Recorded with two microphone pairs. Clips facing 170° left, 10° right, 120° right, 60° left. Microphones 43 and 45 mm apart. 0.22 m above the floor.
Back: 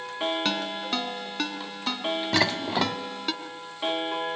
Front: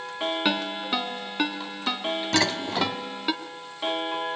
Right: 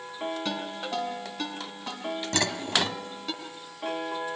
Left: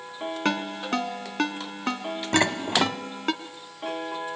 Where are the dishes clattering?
105° left, 0.9 m.